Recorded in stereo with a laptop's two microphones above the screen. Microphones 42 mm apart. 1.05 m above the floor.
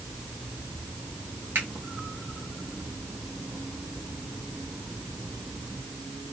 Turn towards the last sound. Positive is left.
turn(degrees=-65)  # may be behind; listen again after turning